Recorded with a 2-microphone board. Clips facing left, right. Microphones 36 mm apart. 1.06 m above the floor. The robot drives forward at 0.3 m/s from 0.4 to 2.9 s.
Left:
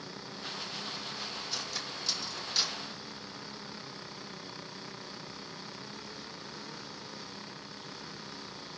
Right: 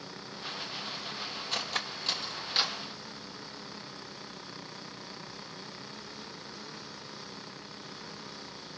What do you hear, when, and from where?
1.5 s cutlery clinking: 45° right (ahead or behind), 0.6 m; by 2.8 s 30° right (ahead or behind), 0.9 m